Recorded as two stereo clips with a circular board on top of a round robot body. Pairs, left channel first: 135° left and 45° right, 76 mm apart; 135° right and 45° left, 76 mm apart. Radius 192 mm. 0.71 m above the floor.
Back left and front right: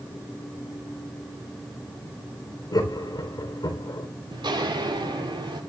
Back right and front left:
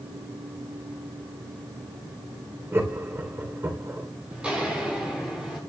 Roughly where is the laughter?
Left.